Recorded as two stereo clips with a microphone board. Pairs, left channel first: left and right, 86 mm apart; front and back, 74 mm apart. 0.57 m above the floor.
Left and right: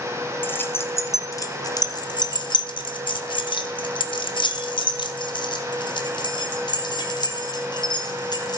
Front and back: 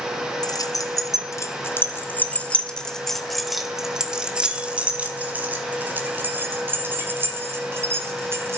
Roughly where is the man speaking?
I don't hear a man speaking.